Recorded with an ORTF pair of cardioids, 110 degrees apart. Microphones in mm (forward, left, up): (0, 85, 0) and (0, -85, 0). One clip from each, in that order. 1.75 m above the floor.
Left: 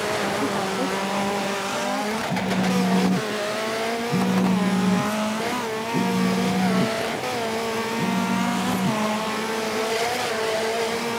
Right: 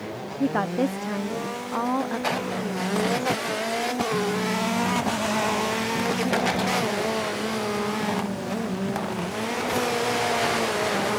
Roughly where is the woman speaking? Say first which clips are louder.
Left 1 dB; ahead right.